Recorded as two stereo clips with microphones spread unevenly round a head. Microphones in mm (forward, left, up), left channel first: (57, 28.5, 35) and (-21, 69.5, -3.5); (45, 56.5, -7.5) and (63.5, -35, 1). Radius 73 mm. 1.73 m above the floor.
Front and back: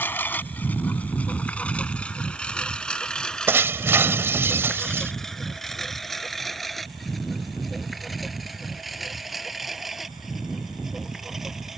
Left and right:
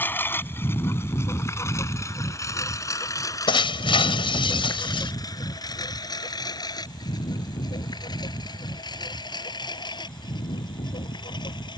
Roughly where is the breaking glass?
Left.